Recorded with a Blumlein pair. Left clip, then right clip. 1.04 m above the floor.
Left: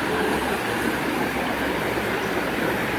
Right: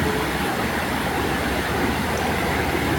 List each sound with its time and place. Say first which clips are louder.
0.0 s running water: even; 40° right, 5.5 m